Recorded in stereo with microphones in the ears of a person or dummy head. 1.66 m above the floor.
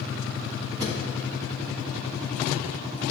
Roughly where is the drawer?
Right.